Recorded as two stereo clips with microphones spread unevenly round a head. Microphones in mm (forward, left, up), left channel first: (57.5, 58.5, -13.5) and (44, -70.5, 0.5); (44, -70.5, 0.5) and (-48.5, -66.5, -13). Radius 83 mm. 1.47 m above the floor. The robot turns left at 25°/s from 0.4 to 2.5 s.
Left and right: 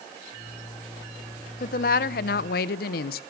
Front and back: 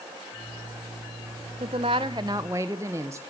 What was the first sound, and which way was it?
A woman speaking, 125° left.